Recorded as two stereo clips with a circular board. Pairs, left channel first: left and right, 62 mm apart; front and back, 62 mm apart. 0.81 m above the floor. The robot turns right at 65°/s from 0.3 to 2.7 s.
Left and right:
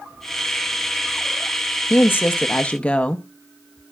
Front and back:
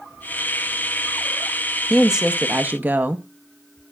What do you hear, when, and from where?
1.9 s a woman speaking: 100° left, 0.6 m; by 3.2 s 150° left, 0.6 m